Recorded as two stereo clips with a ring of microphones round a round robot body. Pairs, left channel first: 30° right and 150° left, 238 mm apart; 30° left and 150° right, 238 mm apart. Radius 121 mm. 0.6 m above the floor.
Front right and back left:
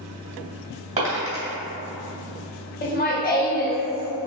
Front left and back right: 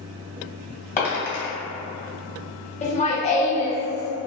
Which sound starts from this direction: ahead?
Laughter, at 2.8 s.